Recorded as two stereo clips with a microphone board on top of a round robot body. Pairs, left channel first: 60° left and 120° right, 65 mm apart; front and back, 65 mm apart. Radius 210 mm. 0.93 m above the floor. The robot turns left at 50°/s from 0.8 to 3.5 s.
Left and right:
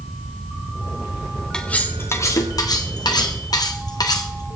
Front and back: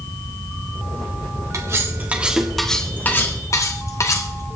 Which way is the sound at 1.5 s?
140° left.